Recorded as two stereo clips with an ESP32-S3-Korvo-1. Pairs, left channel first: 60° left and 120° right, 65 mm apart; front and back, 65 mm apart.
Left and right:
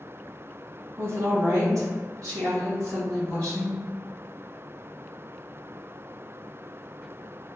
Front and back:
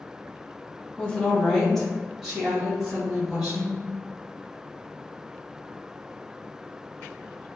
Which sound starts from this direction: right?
A woman speaking, at 1.0 s.